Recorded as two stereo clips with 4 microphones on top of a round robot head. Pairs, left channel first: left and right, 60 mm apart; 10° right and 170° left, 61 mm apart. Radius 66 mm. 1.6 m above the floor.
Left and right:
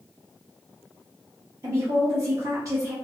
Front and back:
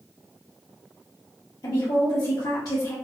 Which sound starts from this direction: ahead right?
A woman speaking, at 1.6 s.